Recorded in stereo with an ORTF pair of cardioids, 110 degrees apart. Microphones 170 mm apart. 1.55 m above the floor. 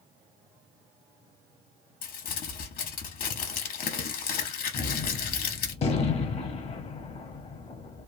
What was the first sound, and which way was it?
Crumpling, 55° left.